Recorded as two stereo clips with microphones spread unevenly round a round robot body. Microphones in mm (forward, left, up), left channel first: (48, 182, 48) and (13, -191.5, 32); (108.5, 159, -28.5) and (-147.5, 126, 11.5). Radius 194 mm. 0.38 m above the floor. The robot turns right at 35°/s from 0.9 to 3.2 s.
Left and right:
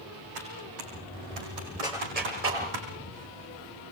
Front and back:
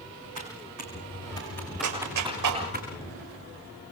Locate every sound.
0.3 s typing on a keyboard: 130° right, 5.5 m; by 2.8 s 65° right, 5.5 m
1.8 s a clap: 175° right, 8 m; by 2.6 s 150° right, 8 m